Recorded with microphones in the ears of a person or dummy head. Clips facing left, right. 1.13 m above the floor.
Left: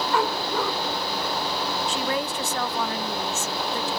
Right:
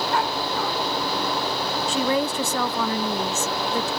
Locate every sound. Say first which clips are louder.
0.1 s a dog barking: left 3 dB; 65° left (ahead or behind)
1.9 s a woman speaking: right 8 dB; 70° right (ahead or behind)